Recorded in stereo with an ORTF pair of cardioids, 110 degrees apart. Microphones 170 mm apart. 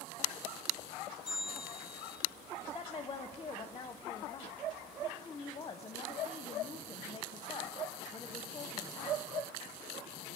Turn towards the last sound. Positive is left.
turn(degrees=25)